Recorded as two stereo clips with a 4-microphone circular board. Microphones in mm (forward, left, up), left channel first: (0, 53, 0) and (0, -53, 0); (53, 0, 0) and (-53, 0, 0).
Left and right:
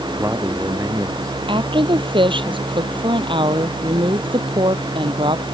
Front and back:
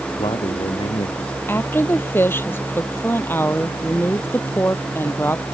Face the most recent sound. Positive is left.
turn(degrees=-65)